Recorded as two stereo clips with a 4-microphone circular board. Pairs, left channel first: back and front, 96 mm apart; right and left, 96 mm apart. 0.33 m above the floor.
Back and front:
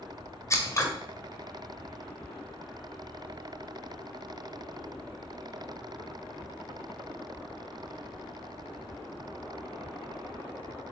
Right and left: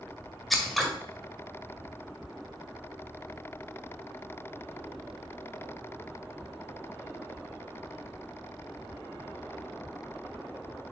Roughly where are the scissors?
Behind.